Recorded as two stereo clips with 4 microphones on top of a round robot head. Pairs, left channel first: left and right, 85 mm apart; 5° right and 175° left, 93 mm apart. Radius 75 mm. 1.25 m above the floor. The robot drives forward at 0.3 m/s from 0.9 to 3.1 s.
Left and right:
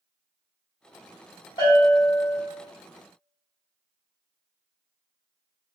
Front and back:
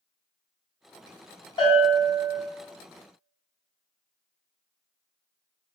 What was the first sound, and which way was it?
A bell, 35° left.